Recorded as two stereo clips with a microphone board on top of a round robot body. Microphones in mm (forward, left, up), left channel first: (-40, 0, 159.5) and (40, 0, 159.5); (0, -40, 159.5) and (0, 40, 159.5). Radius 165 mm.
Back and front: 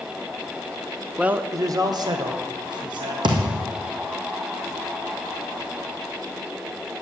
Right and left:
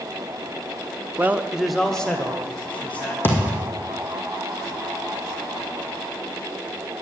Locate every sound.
1.2 s a man speaking: 65° left, 0.9 m; by 3.1 s 20° right, 3 m
3.2 s a thud: 25° right, 2 m